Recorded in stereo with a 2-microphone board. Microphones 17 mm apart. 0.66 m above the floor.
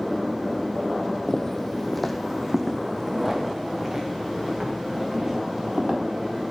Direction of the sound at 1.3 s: 40° left (ahead or behind).